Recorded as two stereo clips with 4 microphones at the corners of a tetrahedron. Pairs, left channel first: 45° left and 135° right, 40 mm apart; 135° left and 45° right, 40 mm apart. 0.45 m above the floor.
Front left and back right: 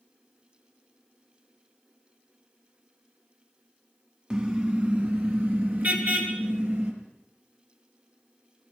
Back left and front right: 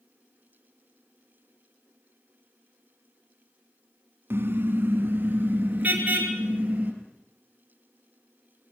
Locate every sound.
4.3 s a car horn: 70° right, 2 m; by 6.9 s 100° right, 5 m